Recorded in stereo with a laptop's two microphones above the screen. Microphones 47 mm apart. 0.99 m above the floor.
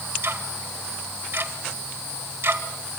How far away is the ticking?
About 2 m.